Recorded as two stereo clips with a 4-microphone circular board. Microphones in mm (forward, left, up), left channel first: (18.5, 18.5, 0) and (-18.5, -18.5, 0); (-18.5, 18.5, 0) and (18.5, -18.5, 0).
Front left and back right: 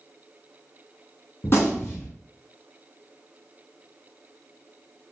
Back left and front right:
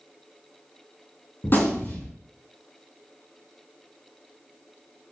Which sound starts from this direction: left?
A gunshot, at 1.4 s.